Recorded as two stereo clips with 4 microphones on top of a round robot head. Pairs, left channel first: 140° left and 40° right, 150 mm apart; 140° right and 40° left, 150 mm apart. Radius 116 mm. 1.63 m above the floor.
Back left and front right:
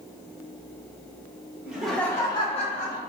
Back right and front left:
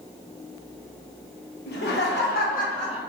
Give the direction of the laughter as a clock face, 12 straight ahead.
4 o'clock.